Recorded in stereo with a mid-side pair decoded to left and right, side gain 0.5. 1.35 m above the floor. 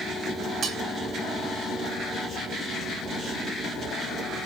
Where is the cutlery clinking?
50° right, 2.5 m.